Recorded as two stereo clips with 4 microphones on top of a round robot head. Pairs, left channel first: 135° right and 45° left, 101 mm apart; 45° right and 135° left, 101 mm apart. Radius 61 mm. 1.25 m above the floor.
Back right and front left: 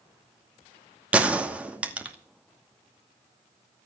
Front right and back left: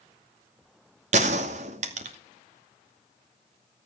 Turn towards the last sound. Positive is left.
turn(degrees=125)